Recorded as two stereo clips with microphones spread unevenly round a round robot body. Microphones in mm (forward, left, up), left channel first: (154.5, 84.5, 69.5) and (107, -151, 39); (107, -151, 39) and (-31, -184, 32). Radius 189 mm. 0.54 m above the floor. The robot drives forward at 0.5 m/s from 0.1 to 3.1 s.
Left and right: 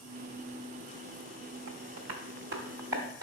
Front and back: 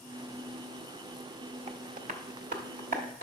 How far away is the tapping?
About 0.7 m.